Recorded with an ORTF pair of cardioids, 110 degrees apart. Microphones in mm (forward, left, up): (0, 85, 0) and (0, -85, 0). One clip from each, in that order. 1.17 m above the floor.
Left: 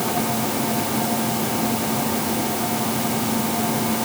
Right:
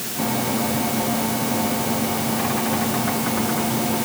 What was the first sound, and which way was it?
Only background noise.